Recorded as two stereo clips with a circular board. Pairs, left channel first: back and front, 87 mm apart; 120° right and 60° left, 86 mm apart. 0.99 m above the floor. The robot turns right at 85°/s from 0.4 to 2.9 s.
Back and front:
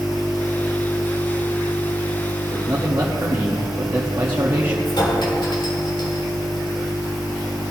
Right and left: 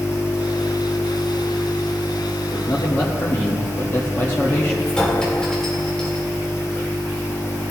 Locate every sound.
2.5 s a man speaking: 90° right, 1.3 m; by 4.8 s 60° right, 1.3 m
4.8 s a clink: 160° left, 2.5 m